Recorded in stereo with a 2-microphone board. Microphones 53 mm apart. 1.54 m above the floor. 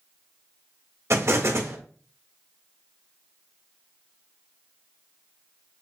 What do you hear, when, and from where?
1.1 s an explosion: 60° right (ahead or behind), 1.2 m